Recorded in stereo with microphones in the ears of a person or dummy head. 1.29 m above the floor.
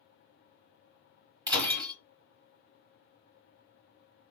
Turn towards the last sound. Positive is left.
turn(degrees=-15)  # may be behind; listen again after turning